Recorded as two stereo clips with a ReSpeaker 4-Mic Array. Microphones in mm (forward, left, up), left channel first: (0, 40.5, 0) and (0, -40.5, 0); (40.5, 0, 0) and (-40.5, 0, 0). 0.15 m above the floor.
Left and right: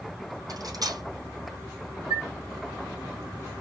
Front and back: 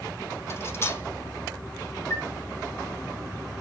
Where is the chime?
55° right, 3 m.